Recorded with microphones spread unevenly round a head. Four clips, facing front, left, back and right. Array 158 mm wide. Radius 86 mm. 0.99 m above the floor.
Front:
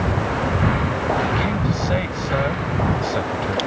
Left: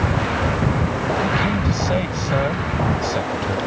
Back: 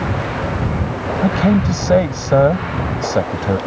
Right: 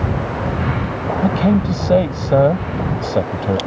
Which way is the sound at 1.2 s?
135° right.